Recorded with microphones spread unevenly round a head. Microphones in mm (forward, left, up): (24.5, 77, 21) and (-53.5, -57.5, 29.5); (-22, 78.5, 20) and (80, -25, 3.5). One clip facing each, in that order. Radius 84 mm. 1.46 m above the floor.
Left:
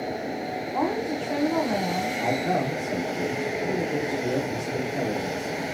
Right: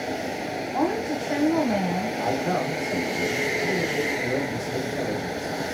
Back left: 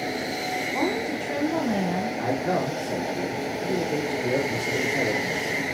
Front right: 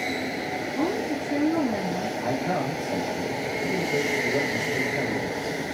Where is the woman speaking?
155° left, 1.5 m.